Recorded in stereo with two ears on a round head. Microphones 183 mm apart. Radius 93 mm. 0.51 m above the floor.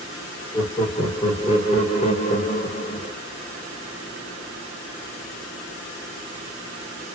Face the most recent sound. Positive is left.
turn(degrees=35)  # may be behind; listen again after turning